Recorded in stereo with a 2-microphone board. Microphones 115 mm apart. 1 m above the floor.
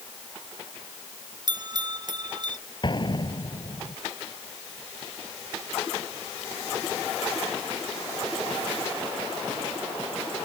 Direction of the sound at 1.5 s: 40° right (ahead or behind).